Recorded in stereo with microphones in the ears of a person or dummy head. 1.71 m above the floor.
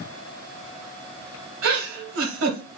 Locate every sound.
1.6 s a giggle: 85° right, 1.2 m